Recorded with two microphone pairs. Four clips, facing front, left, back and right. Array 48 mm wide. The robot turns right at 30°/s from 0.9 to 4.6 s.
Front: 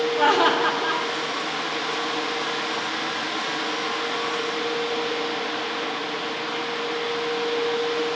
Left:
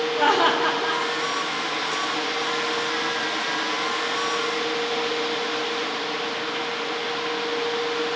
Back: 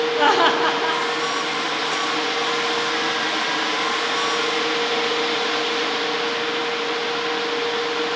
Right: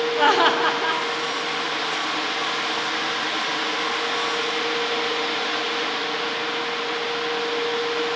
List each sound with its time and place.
0.2 s laughter: 130° right, 0.8 m; by 1.0 s 125° right, 0.8 m